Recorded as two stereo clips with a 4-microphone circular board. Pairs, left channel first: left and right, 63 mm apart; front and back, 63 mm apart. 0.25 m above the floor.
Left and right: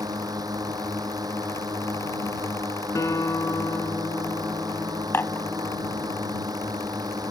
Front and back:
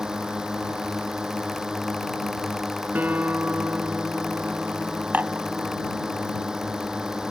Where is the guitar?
120° left.